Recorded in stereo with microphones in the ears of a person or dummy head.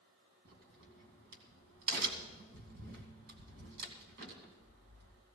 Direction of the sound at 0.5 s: 55° right (ahead or behind).